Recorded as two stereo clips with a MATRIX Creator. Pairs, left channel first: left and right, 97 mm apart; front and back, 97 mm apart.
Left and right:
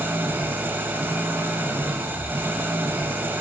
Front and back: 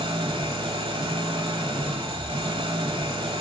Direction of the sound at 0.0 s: 160° right.